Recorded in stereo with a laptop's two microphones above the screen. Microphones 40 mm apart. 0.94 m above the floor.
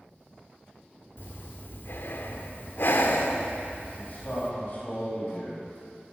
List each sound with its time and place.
1.2 s breathing: 60° left (ahead or behind), 1.4 m
4.0 s a man speaking: 45° left (ahead or behind), 5 m